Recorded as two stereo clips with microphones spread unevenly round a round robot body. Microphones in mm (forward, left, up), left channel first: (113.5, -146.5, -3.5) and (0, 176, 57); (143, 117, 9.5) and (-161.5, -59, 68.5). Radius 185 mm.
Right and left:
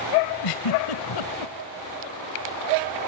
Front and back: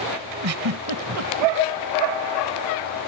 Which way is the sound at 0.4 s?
100° right.